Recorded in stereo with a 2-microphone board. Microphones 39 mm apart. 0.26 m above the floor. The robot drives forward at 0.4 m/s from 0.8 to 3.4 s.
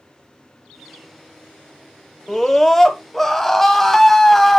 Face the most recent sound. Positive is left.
turn(degrees=10)  # may be behind; listen again after turning